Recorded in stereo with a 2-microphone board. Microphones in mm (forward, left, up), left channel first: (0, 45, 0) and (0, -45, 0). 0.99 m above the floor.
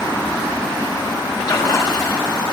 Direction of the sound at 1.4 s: 50° left (ahead or behind).